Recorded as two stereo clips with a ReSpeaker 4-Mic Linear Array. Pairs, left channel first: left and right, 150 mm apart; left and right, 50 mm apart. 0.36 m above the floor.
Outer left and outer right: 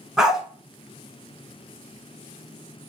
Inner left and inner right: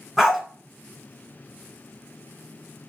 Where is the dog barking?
5° right (ahead or behind), 1.4 m.